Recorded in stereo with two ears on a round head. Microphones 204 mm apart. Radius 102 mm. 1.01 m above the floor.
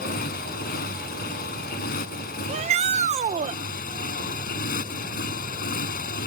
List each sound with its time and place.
0.0 s a motorcycle: 40° left (ahead or behind)
2.5 s a shout: 30° right (ahead or behind)